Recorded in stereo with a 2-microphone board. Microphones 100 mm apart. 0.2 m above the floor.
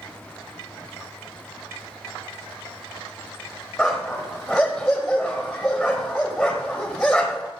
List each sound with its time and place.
3.8 s a dog barking: 5° left (ahead or behind), 3.5 m